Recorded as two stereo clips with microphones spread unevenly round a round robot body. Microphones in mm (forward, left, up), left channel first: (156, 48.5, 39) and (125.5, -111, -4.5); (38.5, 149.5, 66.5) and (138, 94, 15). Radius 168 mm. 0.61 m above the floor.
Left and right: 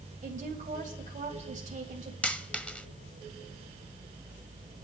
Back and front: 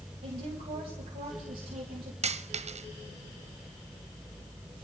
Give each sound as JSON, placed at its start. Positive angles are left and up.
{"t": 0.2, "sound": "a woman speaking", "azimuth_deg": -70, "distance_m": 3.0}
{"t": 2.2, "sound": "a dropped coin", "azimuth_deg": 0, "distance_m": 1.0}